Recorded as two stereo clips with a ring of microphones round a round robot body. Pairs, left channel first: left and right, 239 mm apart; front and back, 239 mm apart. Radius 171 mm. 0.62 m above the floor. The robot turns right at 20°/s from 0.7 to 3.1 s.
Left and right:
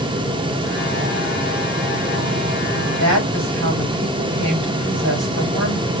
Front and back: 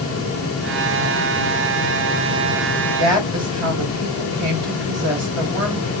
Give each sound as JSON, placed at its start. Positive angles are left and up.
{"t": 3.0, "sound": "a woman speaking", "azimuth_deg": -145, "distance_m": 4.0}